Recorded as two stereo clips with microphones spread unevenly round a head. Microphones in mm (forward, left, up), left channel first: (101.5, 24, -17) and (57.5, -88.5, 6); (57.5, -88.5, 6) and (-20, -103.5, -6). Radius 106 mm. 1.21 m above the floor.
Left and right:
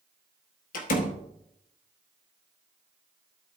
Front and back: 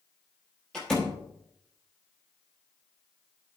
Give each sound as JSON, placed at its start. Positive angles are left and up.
{"t": 0.7, "sound": "a door slam", "azimuth_deg": 90, "distance_m": 1.0}